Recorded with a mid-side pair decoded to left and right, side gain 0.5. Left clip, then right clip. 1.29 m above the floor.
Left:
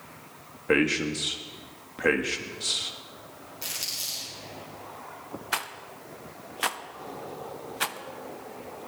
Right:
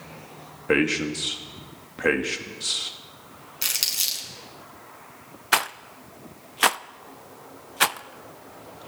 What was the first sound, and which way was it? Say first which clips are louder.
A man speaking: right 2 dB; 10° right.